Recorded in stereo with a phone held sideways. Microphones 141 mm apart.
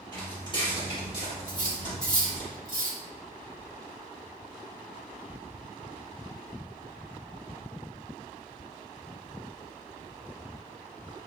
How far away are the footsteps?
About 1.8 m.